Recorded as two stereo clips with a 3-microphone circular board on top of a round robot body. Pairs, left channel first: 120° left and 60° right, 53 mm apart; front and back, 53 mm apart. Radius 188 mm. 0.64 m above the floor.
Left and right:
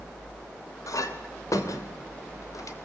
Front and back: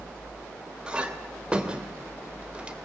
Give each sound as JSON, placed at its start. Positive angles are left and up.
{"t": 0.9, "sound": "a clink", "azimuth_deg": 110, "distance_m": 2.5}